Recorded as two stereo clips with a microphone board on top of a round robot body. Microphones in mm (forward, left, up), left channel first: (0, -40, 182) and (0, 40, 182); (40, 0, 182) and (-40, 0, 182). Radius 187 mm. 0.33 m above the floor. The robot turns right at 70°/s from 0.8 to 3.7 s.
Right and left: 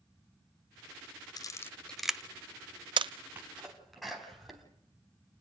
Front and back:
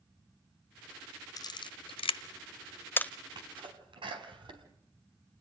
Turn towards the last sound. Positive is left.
turn(degrees=180)